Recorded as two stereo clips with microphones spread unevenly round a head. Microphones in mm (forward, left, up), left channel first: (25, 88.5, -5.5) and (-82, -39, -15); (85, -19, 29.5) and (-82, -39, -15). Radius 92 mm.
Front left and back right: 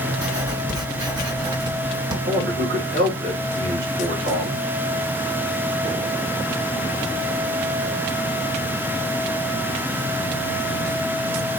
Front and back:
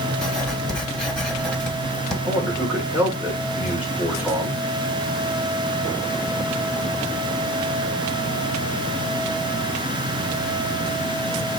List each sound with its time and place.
0.2 s writing: 65° right, 1.2 m
2.3 s a man speaking: 95° right, 1.7 m